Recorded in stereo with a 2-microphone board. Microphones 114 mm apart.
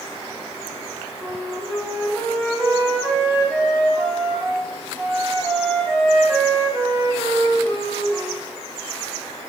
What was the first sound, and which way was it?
A flute, 20° right (ahead or behind).